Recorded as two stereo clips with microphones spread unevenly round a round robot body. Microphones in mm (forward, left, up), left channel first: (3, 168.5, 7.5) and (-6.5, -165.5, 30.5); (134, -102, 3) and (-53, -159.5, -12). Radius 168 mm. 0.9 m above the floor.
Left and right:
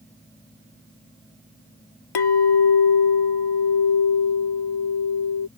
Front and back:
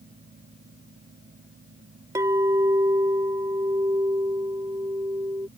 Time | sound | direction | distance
2.1 | a clink | 115° left | ?